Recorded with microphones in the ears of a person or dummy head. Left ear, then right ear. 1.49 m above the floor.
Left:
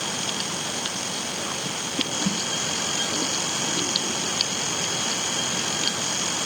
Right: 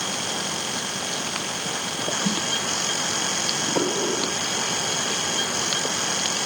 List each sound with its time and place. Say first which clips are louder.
2.2 s a snare drum: right 2 dB; 60° right (ahead or behind), 5 m